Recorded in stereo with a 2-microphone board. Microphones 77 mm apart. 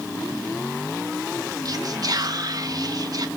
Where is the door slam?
I don't hear a door slam.